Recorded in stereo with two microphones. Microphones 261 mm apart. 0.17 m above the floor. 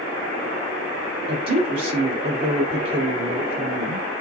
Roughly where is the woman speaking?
Right.